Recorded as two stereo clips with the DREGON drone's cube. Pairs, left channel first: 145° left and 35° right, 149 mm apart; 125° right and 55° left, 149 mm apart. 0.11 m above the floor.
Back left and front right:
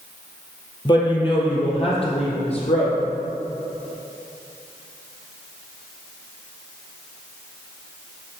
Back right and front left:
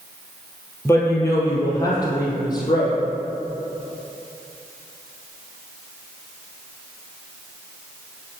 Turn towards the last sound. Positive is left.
turn(degrees=180)